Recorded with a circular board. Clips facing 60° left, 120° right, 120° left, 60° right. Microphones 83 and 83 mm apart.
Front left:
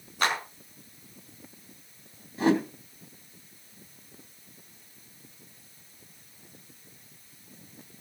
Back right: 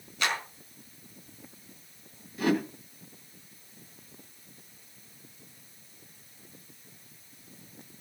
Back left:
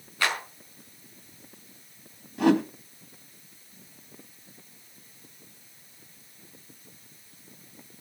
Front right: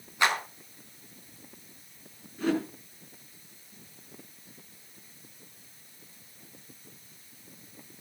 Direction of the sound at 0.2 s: 10° left.